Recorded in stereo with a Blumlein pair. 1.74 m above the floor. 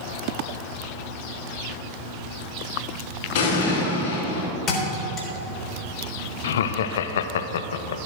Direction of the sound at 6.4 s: 60° left.